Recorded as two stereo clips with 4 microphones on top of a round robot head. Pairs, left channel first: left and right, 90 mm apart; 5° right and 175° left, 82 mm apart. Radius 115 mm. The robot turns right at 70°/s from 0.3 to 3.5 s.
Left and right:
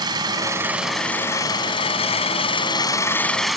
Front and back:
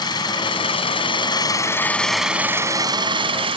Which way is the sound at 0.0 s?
45° right.